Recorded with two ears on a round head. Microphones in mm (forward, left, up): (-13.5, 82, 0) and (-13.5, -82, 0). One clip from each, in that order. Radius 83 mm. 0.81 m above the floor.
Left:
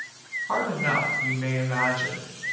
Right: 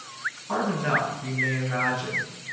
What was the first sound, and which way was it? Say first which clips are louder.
A woman speaking: left 1 dB; 50° left (ahead or behind).